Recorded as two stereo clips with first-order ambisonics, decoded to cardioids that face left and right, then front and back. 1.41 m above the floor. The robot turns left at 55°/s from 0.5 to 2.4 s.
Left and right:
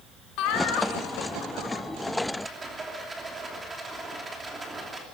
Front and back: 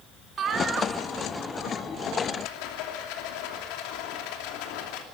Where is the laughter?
120° left, 3 m; by 1.8 s 45° left, 3 m.